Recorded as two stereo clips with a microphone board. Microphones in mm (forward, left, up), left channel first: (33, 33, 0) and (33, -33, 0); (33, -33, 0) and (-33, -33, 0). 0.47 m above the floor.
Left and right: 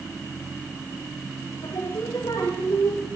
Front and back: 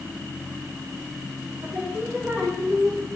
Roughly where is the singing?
Behind left.